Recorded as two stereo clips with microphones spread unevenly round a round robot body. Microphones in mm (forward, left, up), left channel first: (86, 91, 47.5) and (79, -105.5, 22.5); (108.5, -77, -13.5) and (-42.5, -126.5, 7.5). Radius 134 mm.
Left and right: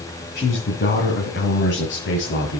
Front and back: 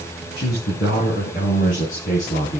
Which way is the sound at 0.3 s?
50° left.